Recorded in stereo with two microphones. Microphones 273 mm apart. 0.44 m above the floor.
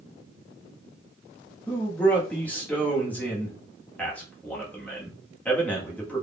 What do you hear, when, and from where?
1.7 s a man speaking: 5° left (ahead or behind), 1.3 m